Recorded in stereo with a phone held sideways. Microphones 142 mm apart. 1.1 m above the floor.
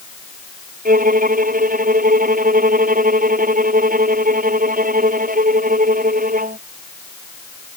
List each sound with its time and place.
0.8 s a violin: 75° right (ahead or behind)